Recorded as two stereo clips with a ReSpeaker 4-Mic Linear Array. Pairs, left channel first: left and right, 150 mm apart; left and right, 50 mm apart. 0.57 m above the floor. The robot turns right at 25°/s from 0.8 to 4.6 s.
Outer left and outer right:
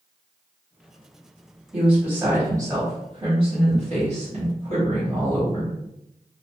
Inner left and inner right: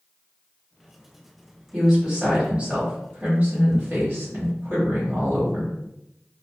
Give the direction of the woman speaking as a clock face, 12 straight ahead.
6 o'clock.